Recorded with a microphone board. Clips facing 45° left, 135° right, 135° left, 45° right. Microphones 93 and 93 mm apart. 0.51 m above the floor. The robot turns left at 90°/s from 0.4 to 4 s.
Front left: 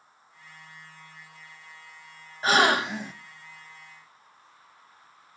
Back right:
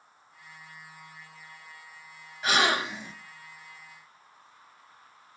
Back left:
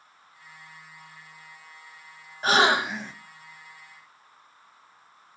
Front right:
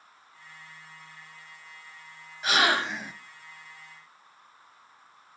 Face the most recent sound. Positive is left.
turn(degrees=-50)